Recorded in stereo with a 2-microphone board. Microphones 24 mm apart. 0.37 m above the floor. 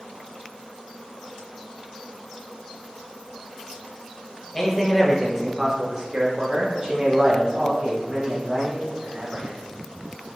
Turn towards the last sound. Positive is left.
turn(degrees=-50)  # may be behind; listen again after turning